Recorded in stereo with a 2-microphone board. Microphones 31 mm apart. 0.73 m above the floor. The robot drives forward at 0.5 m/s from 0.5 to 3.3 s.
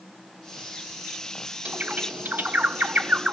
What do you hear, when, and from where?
1.6 s a bird: 60° right (ahead or behind), 0.8 m